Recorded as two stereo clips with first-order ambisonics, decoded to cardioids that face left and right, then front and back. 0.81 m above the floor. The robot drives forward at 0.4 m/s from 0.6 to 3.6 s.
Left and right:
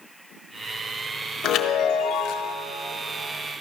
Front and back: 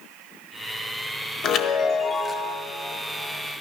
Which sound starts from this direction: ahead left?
A chime, at 1.4 s.